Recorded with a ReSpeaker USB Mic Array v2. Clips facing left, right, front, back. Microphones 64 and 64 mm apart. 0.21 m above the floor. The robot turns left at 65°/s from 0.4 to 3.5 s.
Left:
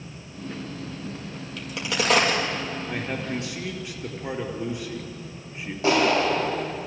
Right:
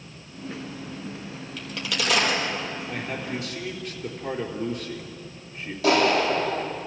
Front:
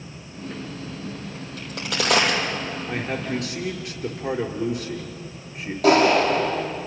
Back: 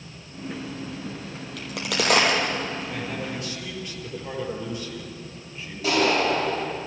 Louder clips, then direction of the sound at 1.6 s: Left 3 dB, back 1 dB; straight behind.